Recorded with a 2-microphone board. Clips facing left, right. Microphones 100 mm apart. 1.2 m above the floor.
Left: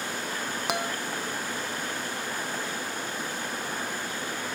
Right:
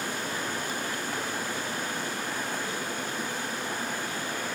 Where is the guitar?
85° left.